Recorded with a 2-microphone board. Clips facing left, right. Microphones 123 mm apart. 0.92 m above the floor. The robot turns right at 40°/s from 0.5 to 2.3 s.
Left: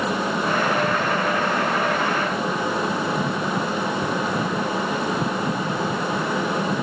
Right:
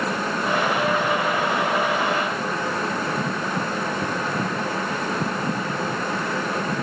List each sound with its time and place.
Only background noise.